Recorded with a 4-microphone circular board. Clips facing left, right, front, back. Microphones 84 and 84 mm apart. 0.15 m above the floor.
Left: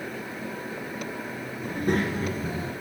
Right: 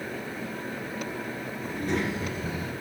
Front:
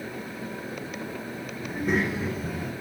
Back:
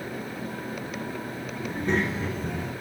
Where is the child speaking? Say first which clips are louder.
Left 3 dB, even; 80° left, 2.0 m.